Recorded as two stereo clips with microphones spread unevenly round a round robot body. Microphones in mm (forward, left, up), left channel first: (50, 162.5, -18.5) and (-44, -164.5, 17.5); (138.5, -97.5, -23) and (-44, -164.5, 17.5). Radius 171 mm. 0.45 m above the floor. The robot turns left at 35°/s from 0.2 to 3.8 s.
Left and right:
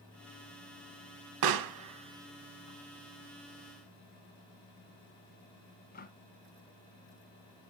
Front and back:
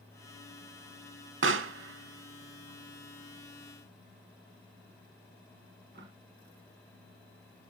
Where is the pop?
135° right, 1.0 m; by 6.1 s 140° left, 1.0 m.